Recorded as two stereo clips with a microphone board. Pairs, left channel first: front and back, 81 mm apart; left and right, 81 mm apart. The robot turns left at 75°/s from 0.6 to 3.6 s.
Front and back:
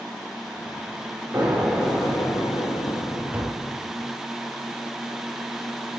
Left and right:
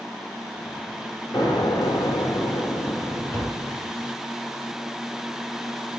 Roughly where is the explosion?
Behind left.